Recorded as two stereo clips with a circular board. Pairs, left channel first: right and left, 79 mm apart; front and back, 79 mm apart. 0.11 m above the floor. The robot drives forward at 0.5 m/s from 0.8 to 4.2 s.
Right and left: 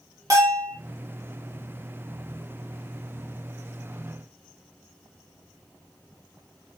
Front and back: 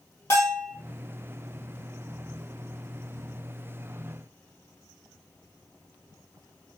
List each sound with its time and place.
0.3 s a bell: 50° left, 2.5 m